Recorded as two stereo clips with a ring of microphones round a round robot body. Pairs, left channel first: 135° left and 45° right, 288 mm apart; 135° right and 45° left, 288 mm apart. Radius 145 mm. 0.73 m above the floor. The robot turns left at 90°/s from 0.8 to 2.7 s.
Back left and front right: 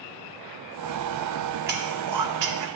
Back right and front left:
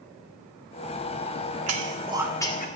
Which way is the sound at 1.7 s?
15° left.